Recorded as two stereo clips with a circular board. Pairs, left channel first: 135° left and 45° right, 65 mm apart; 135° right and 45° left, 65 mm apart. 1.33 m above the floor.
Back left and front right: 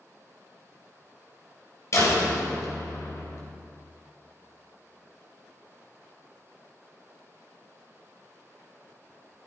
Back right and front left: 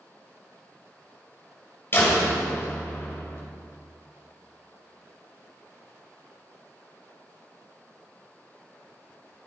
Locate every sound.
1.9 s a door slam: 175° left, 4 m